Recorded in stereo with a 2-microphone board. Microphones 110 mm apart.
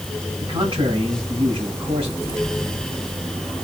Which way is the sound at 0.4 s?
50° right (ahead or behind).